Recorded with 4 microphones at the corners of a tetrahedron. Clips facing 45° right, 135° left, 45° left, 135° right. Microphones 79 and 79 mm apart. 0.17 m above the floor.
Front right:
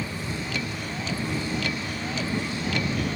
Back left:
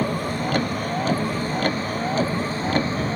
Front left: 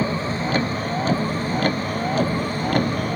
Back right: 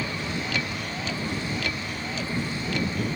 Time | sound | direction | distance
0.0 | a vehicle | 95° left | ?